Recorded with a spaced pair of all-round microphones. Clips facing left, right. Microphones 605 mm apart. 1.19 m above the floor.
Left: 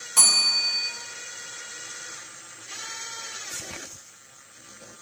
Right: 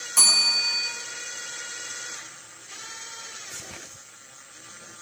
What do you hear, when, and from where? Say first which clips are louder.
0.2 s a bell: even; 80° left, 3.5 m